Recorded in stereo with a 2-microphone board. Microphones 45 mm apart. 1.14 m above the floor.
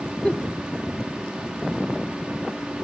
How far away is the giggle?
About 0.7 m.